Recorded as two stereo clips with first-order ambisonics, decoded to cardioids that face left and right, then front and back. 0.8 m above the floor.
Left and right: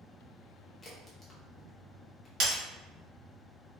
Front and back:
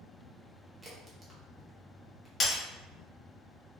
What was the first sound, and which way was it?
A crack, 135° left.